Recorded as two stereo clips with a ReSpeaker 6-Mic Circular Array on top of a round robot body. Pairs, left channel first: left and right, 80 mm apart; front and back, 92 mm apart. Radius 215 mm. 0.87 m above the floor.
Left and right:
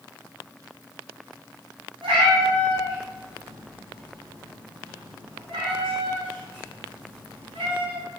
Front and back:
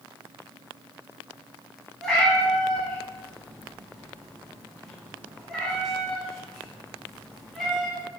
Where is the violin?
I don't hear a violin.